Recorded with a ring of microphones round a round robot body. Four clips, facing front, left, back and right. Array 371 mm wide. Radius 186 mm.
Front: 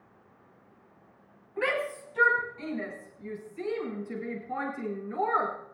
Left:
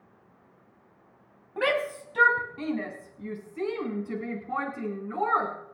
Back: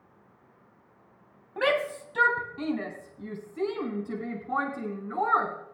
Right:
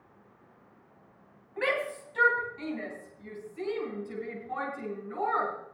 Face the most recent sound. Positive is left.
turn(degrees=150)